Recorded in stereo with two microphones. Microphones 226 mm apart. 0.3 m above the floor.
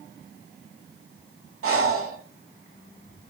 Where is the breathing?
75° right (ahead or behind), 0.8 m.